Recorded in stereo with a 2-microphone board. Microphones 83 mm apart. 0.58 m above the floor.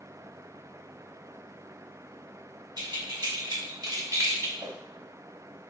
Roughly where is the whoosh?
Right.